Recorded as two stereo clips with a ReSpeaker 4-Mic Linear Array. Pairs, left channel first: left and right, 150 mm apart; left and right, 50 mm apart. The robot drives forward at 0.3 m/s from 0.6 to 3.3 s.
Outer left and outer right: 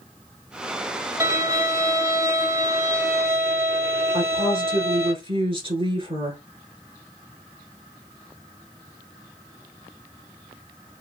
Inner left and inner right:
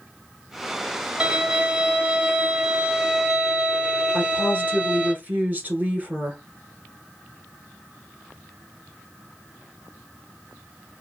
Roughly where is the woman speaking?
Right.